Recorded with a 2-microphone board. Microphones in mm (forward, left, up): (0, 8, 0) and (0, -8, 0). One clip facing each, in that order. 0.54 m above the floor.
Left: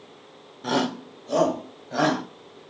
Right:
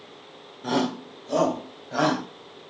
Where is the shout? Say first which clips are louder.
Even; 15° left (ahead or behind), 1.2 m; by 2.2 s 5° right (ahead or behind), 3 m.